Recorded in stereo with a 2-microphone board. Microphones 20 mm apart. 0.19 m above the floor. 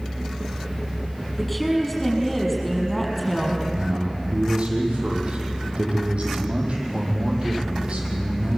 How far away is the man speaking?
About 6.5 m.